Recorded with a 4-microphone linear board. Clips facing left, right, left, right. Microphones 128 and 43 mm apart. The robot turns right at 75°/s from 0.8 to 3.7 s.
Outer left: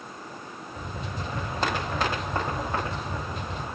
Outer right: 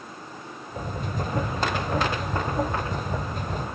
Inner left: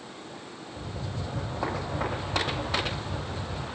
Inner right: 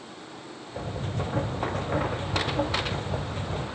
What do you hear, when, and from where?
Only background noise.